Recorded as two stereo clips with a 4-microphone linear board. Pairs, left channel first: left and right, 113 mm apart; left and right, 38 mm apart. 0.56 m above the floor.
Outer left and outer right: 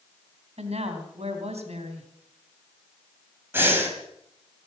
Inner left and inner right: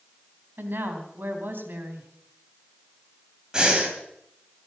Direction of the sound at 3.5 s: 20° right (ahead or behind).